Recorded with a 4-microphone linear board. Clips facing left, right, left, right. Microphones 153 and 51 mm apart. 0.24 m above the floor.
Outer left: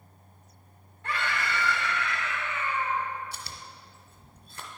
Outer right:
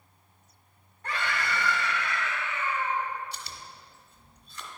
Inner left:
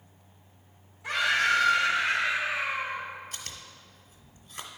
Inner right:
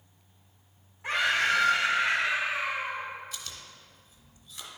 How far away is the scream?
About 2.0 m.